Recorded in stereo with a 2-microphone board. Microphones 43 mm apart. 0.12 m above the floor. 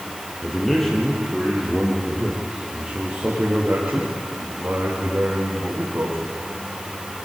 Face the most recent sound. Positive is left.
turn(degrees=-55)  # may be behind; listen again after turning